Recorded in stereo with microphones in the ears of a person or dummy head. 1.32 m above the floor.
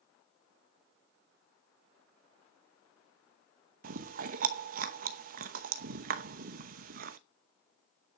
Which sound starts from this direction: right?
Chewing, at 3.8 s.